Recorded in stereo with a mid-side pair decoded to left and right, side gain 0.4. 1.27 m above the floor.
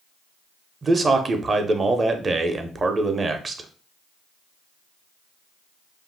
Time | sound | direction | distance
0.8 | a man speaking | 35° right | 0.7 m